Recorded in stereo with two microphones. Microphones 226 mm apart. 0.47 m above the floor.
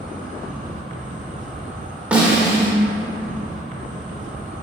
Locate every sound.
0.0 s an insect: 35° right (ahead or behind), 1.2 m
2.1 s a snare drum: 5° right (ahead or behind), 1.6 m